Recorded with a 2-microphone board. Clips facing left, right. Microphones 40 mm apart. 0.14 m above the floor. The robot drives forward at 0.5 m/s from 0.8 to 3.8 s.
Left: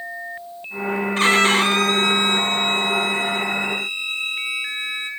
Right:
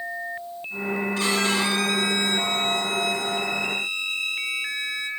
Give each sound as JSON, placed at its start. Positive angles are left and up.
{"t": 1.2, "sound": "a violin", "side_deg": 50, "distance_m": 0.8}